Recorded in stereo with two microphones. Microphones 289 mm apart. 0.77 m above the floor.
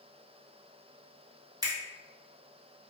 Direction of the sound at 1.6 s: 15° right (ahead or behind).